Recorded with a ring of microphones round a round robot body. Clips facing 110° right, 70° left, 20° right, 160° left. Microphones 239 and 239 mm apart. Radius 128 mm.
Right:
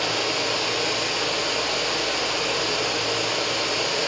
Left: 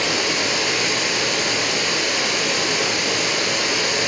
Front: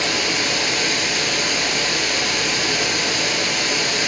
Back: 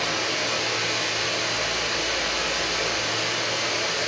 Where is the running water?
5° left, 3 m.